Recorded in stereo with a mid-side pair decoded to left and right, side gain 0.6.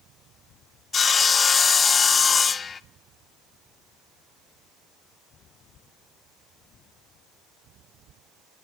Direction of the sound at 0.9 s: 30° left.